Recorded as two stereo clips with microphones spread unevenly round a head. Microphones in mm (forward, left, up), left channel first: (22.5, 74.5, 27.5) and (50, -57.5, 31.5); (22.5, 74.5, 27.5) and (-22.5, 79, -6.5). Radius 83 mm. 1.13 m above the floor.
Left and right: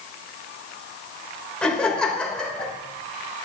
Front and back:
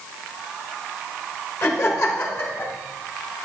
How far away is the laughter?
About 3.5 m.